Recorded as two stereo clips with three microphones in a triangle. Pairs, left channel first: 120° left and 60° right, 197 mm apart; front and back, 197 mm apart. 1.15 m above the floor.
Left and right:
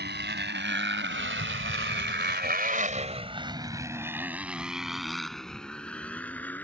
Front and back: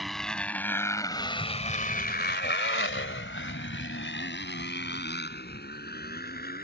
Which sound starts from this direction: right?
A motorcycle, at 0.0 s.